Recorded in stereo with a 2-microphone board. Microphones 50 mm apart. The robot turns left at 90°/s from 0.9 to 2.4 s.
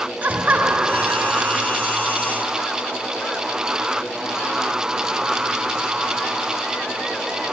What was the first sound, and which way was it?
Laughter, 40° right.